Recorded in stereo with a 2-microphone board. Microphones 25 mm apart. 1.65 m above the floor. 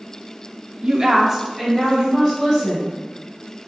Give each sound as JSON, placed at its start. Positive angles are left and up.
{"t": 0.8, "sound": "a woman speaking", "side_deg": -30, "distance_m": 0.6}